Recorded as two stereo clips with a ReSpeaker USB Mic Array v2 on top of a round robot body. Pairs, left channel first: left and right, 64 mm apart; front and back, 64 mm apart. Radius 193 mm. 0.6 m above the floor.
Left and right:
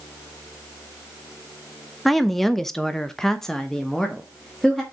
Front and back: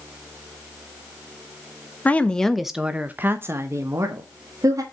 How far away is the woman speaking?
About 1.2 m.